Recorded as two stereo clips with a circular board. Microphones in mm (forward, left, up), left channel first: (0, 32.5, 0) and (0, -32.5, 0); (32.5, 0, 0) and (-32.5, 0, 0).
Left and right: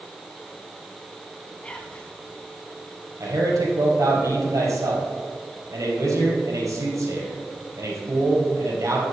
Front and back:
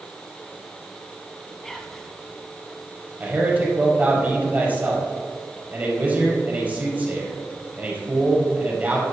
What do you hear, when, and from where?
1.6 s whispering: 70° left, 1.0 m
3.2 s a man speaking: 120° right, 3.5 m